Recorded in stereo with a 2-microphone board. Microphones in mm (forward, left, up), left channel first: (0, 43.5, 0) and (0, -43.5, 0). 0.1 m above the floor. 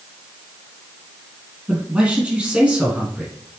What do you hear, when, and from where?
1.7 s a man speaking: 15° right (ahead or behind), 3 m